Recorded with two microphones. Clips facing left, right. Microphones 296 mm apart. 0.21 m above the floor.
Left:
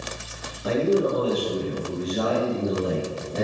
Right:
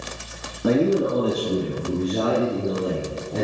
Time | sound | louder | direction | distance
0.6 | a man speaking | right 2 dB | 60° right (ahead or behind) | 2.5 m